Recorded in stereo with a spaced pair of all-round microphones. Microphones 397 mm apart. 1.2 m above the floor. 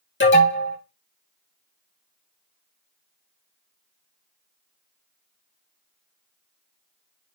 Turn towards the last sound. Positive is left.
turn(degrees=30)  # may be behind; listen again after turning